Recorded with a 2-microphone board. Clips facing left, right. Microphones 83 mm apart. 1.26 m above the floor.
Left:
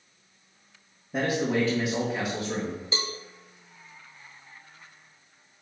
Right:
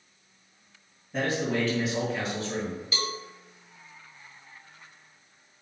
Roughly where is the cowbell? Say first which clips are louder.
Right 1 dB; left.